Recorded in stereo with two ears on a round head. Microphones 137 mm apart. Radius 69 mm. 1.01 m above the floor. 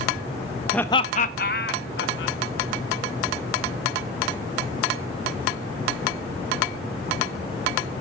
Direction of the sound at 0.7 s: 5° left (ahead or behind).